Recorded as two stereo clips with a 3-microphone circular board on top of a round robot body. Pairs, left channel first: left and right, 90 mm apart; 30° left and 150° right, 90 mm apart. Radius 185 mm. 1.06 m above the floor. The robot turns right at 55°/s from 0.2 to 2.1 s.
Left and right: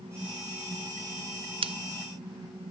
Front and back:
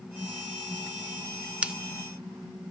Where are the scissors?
70° right, 1.1 m; by 1.7 s 65° right, 1.1 m.